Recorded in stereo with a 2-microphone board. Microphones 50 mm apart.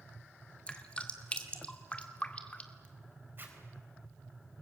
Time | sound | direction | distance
0.7 | dripping | 25° left (ahead or behind) | 1.9 m
3.4 | a zipper | 45° right (ahead or behind) | 3.5 m